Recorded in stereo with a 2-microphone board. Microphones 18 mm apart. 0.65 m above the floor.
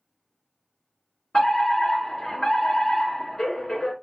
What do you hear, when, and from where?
1.3 s a fire alarm: 25° left (ahead or behind), 2.5 m